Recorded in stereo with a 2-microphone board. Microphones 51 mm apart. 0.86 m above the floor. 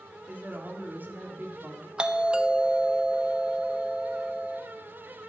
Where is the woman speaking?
40° right (ahead or behind), 2.0 m.